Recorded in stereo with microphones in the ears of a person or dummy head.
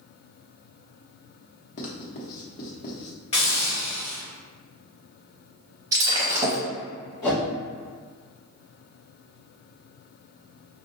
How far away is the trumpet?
I don't hear a trumpet.